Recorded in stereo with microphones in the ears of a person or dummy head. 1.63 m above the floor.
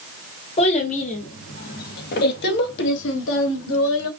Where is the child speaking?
35° left (ahead or behind), 2 m; by 4.1 s 75° left (ahead or behind), 1.8 m.